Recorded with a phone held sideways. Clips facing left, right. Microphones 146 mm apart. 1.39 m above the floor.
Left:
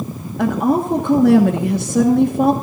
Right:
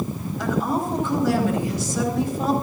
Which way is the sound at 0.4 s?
60° left (ahead or behind).